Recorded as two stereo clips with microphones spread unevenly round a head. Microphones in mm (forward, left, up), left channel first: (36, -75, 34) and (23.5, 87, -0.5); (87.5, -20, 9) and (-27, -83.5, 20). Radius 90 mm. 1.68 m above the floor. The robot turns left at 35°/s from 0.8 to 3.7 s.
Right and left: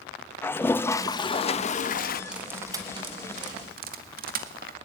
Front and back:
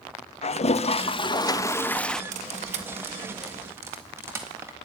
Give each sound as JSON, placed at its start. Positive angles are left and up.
{"t": 0.4, "sound": "a toilet flushing", "azimuth_deg": -10, "distance_m": 0.8}
{"t": 2.3, "sound": "cutlery clinking", "azimuth_deg": -175, "distance_m": 1.5}